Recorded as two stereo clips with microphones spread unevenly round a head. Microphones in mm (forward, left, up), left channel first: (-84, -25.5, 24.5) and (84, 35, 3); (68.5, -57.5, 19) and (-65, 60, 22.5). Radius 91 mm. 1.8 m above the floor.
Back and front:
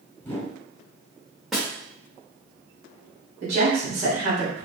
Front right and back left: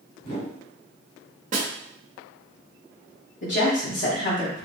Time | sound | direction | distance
0.2 | a whoosh | 85° right | 2 m
1.5 | a snare drum | 115° left | 1.4 m
3.4 | a woman speaking | 25° right | 2 m